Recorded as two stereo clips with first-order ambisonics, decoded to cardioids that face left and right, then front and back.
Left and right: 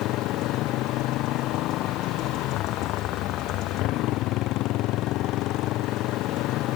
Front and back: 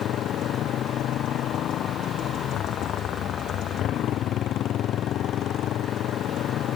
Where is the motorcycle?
50° left.